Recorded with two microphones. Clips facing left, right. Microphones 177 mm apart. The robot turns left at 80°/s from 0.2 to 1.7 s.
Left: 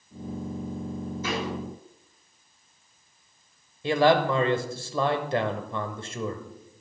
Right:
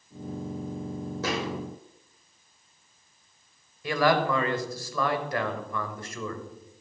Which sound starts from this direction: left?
A man speaking, at 3.8 s.